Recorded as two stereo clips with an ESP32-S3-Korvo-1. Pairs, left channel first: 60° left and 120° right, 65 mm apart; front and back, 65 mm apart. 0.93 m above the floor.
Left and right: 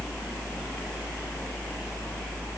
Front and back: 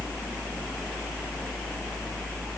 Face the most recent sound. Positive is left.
No sound to turn to.